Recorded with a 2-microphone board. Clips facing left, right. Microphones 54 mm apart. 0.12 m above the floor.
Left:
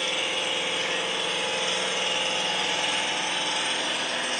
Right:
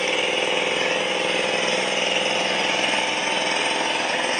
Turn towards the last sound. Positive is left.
turn(degrees=-55)  # may be behind; listen again after turning